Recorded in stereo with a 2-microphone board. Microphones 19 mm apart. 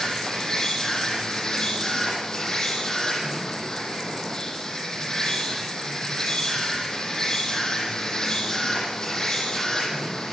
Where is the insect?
30° left (ahead or behind), 8 m.